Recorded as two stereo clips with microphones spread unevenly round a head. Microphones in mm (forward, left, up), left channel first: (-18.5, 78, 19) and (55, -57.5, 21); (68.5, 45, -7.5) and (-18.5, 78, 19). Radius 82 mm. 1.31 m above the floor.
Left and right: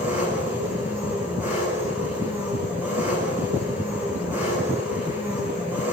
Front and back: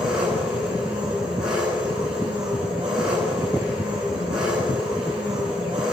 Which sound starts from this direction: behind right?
An engine running, at 0.0 s.